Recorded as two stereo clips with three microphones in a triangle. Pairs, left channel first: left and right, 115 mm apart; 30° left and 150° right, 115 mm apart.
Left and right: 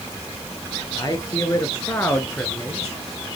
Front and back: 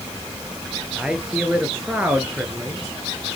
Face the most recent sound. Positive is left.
turn(degrees=175)